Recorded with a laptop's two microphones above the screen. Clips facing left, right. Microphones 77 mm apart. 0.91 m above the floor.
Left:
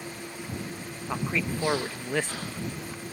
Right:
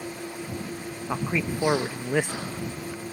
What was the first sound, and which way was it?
An engine running, 15° right (ahead or behind).